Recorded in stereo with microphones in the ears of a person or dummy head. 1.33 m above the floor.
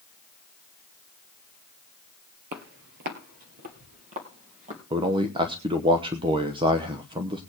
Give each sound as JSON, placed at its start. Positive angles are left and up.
{"t": 2.5, "sound": "footsteps", "side_deg": -45, "distance_m": 1.8}
{"t": 4.9, "sound": "a man speaking", "side_deg": -25, "distance_m": 0.9}